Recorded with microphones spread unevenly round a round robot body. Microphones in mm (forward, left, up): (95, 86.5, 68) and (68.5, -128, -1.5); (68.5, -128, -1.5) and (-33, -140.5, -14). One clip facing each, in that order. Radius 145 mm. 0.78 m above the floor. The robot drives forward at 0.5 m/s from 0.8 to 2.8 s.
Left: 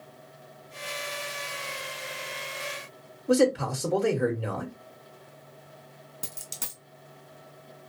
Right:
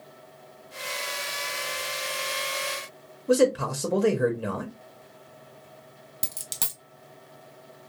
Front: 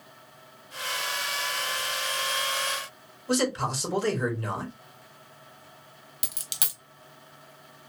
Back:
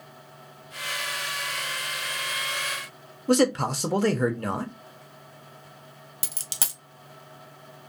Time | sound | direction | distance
3.3 | a man speaking | 155° right | 0.8 m
6.2 | a dropped coin | 125° right | 1.1 m